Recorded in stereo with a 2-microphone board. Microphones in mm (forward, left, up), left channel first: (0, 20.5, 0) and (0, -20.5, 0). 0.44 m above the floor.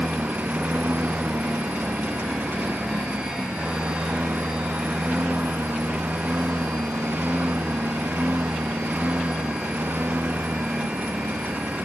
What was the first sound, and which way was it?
A lawn mower, 40° right (ahead or behind).